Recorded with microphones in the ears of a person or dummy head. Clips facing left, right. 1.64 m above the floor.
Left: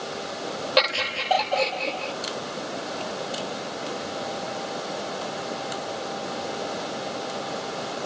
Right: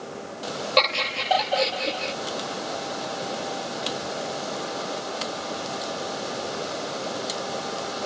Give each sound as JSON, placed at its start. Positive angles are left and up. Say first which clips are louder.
{"t": 0.8, "sound": "laughter", "louder": "even", "side_deg": 10}